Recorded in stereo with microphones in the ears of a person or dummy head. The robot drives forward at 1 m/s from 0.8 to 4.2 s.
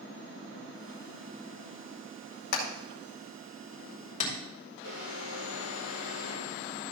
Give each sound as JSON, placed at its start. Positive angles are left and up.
{"t": 2.5, "sound": "hammering", "side_deg": 55, "distance_m": 2.0}
{"t": 4.8, "sound": "an alarm", "side_deg": -70, "distance_m": 6.5}